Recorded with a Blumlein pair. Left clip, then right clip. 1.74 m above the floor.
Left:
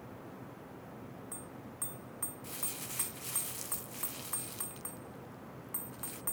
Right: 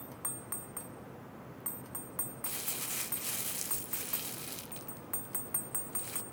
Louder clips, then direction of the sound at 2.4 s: Right 5 dB; 15° right.